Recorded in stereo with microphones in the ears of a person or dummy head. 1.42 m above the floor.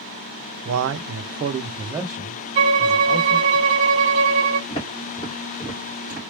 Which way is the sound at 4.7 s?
20° left (ahead or behind).